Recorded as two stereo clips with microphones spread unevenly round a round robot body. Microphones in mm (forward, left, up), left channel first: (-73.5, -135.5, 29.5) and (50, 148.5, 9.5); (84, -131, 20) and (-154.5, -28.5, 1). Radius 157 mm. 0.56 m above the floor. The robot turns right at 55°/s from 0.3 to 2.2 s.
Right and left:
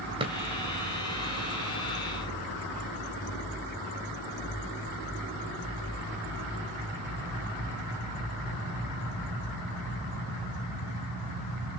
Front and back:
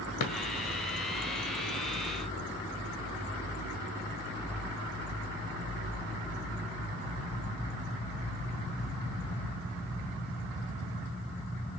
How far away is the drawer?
About 1.9 m.